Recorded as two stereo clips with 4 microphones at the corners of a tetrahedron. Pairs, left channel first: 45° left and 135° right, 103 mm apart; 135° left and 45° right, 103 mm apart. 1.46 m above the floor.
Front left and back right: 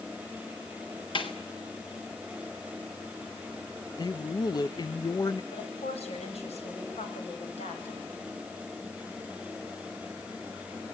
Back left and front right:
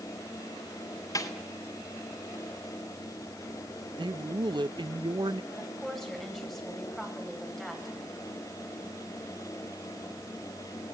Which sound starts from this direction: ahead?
A man speaking, at 4.0 s.